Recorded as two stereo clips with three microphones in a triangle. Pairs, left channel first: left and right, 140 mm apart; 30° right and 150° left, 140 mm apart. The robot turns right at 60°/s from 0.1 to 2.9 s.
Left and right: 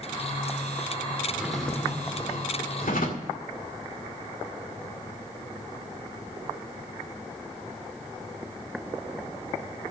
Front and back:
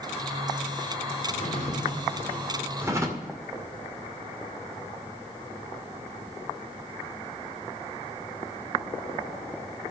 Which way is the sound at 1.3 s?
15° right.